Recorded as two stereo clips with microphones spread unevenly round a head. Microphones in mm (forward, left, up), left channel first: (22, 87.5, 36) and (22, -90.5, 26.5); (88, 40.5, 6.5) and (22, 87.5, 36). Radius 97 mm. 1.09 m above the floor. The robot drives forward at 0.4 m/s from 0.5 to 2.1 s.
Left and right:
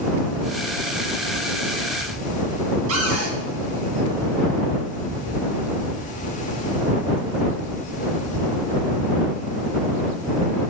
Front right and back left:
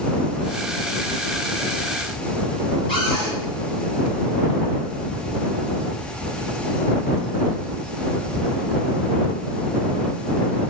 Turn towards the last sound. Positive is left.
turn(degrees=-95)